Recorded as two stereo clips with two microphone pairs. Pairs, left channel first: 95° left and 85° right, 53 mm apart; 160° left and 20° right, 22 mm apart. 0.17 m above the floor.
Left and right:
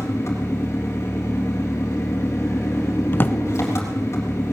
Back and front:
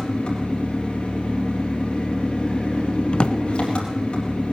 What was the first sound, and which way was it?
An engine running, 130° left.